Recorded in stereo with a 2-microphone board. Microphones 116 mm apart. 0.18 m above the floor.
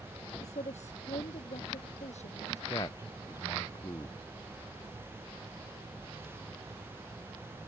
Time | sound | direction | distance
0.4 | a woman speaking | 80° left | ?
2.7 | a man speaking | 35° left (ahead or behind) | ?